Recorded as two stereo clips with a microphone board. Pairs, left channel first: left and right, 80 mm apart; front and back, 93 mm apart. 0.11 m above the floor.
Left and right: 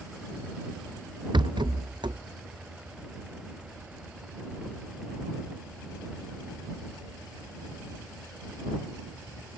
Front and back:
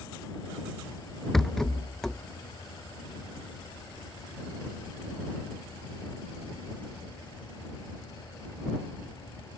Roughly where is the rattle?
Right.